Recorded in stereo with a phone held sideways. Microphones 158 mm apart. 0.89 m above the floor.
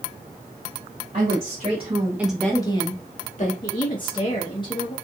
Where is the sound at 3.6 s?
30° left (ahead or behind), 0.8 m.